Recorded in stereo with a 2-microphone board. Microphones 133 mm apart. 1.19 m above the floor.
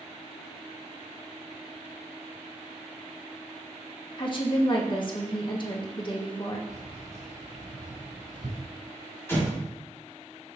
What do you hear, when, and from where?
4.2 s a woman speaking: 40° left (ahead or behind), 1.3 m
6.7 s keys jangling: 80° right, 3.5 m
9.3 s an explosion: 20° left (ahead or behind), 2.5 m